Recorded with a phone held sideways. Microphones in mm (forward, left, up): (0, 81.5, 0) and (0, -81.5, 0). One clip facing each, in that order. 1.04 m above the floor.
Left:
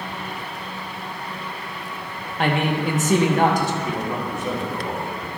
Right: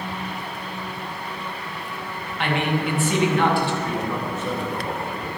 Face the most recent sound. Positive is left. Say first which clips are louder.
# even
turn(degrees=15)  # may be behind; listen again after turning